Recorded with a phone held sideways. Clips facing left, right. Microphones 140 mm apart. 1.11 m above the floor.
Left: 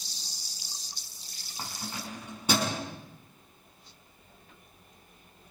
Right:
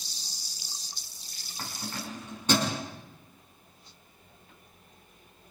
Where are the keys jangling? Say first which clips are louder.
Right 1 dB; 15° left (ahead or behind), 6 m; by 2.8 s 10° left (ahead or behind), 6.5 m.